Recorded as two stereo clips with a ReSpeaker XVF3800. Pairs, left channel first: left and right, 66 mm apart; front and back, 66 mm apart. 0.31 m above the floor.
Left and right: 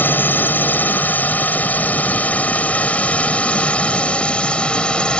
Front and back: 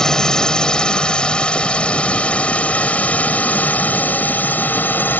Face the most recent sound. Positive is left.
turn(degrees=30)